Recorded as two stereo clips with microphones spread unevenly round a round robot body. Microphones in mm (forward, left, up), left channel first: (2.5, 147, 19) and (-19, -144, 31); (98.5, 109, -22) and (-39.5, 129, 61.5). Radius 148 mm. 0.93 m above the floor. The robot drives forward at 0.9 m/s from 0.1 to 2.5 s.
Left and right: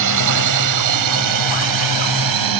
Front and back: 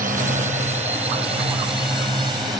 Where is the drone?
120° right; by 2.6 s 105° right.